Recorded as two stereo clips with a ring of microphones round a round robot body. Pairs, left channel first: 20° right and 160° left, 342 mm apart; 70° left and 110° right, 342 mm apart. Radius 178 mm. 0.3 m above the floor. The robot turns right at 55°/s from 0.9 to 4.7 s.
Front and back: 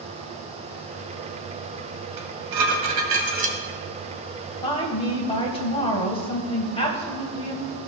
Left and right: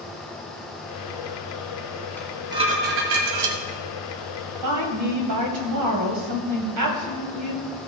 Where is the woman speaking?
100° right, 2 m; by 7.7 s 95° right, 2 m.